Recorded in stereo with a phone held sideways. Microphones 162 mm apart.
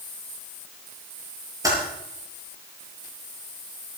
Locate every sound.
1.6 s typing on a keyboard: 20° right (ahead or behind), 8 m